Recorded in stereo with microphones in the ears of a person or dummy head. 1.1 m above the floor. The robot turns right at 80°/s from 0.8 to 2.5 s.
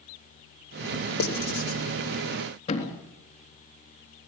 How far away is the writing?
About 3.5 m.